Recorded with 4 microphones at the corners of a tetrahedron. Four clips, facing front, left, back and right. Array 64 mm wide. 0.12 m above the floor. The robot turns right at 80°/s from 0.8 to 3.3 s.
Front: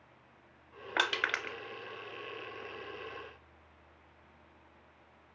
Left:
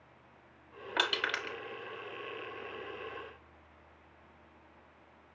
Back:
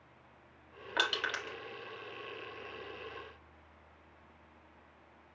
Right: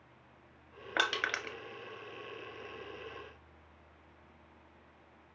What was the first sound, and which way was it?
Crushing, 50° right.